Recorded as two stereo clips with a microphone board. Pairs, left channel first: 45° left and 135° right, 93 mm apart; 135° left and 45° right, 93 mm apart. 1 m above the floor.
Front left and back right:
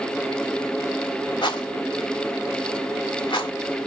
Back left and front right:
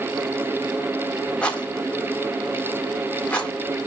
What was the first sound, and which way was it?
A rattle, 60° left.